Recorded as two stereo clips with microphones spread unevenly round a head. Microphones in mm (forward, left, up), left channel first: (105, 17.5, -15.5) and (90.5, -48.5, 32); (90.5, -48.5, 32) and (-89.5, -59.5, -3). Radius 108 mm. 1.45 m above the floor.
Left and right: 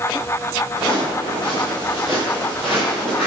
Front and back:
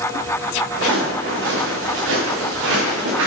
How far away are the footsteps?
About 6 m.